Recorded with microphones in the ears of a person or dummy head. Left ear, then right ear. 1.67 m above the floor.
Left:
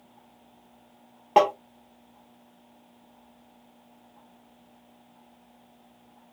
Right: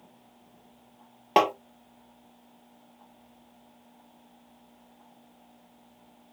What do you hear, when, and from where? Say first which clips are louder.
1.4 s tapping: left 2 dB; 20° right (ahead or behind), 0.9 m